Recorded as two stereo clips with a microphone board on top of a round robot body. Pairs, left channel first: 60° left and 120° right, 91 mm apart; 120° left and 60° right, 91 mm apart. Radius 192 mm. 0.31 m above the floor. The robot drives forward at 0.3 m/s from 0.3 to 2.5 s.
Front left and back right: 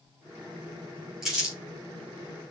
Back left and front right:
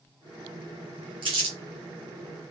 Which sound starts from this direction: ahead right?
Crumpling, at 1.2 s.